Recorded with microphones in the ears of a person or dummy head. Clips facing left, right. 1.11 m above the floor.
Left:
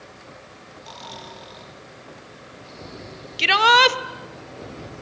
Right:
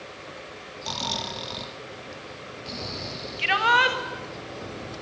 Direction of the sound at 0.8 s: 55° right (ahead or behind).